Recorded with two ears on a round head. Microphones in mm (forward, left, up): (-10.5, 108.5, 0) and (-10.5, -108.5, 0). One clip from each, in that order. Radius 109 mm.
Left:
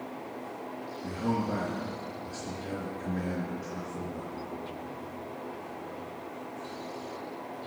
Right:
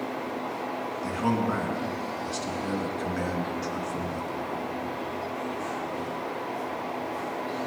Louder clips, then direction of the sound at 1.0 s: Right 4 dB; 55° right (ahead or behind).